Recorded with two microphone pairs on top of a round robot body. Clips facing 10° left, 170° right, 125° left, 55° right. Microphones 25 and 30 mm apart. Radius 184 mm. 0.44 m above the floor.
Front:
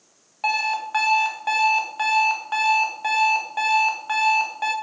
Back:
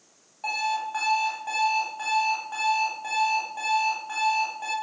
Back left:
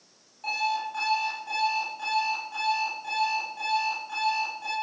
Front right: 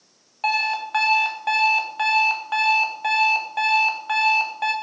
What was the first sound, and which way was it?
An alarm clock, 30° right.